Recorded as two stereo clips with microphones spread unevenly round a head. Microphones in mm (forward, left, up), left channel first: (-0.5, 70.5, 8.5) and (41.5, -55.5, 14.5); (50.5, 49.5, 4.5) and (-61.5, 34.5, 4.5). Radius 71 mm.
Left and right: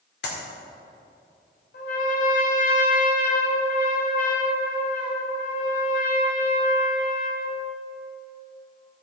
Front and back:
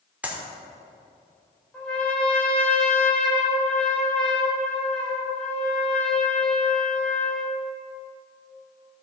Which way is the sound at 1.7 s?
90° left.